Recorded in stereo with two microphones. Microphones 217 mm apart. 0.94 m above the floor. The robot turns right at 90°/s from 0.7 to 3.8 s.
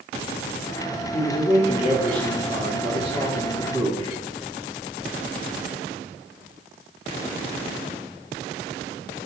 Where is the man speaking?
85° left, 1.3 m; by 4.2 s 35° right, 1.3 m.